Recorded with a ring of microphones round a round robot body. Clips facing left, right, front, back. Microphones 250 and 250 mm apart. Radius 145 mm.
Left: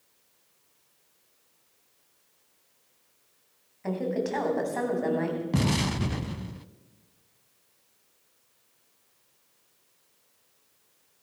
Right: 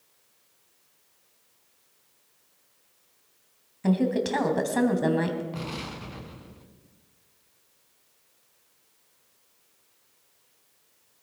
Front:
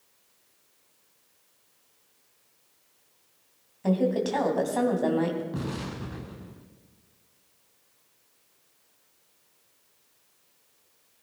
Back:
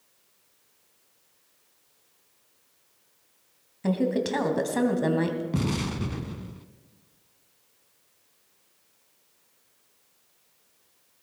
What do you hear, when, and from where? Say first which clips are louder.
3.8 s a woman speaking: right 5 dB, even; 125° right, 3 m
5.5 s an explosion: left 9 dB, back 5 dB; 120° left, 0.6 m